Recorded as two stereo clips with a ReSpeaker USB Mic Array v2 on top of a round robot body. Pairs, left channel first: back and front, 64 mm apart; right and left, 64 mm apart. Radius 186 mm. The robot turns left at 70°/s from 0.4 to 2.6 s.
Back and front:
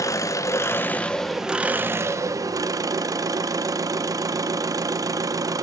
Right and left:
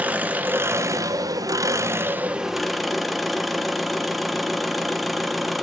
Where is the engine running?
155° left, 1.3 m; by 5.6 s straight ahead, 1.3 m.